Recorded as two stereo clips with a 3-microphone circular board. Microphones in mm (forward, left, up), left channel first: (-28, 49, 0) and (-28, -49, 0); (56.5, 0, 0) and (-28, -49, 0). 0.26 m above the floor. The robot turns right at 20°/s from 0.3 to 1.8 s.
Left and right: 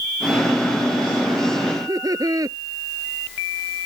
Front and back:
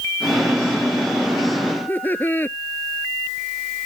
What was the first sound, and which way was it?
Laughter, 40° right.